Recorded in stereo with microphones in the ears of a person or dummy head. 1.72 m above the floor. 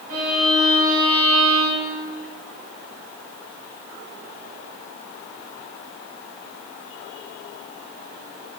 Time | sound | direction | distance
0.1 | a violin | 50° right (ahead or behind) | 3 m